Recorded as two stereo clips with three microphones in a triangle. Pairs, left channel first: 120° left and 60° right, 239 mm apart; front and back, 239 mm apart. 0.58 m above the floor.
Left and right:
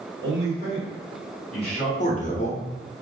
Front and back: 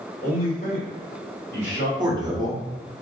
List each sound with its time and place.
0.2 s a man speaking: 50° right, 1.9 m; by 1.9 s 5° left, 1.8 m
2.0 s a man speaking: 125° left, 0.6 m